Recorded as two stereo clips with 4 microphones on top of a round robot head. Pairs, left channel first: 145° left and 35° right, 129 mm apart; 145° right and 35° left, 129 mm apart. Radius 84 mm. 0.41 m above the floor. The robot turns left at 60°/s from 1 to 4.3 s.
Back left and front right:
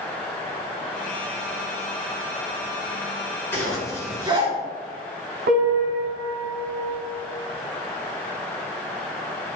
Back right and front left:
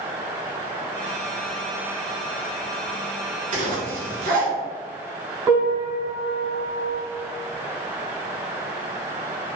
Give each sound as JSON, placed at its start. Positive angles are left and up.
{"t": 3.5, "sound": "a zipper", "azimuth_deg": 65, "distance_m": 2.5}
{"t": 5.5, "sound": "a piano", "azimuth_deg": -30, "distance_m": 2.5}